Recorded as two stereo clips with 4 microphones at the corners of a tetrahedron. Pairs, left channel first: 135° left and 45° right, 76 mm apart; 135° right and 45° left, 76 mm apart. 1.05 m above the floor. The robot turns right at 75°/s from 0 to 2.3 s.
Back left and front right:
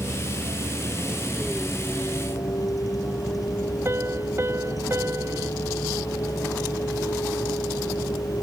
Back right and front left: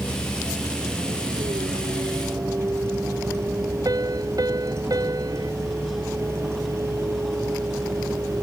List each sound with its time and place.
0.0 s a vehicle: 75° right; by 8.4 s 95° left
3.9 s a piano: 10° left